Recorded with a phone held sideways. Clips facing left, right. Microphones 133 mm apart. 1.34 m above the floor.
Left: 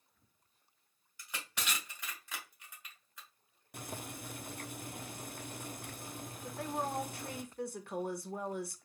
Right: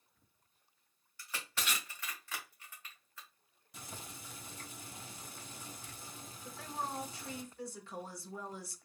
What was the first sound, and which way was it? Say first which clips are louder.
Crushing: right 1 dB; 15° left (ahead or behind).